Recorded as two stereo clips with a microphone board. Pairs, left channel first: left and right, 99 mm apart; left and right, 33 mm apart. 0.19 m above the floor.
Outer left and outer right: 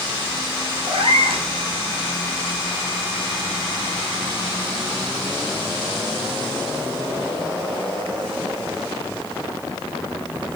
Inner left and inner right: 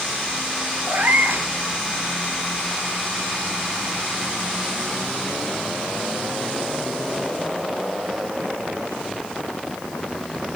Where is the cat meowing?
75° right (ahead or behind), 1.5 m.